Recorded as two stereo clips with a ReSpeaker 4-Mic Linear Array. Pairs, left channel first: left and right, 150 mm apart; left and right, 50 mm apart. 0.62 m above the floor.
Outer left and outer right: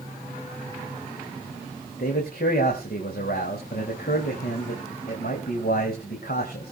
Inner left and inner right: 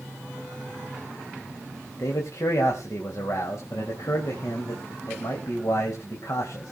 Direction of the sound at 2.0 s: 75° left (ahead or behind).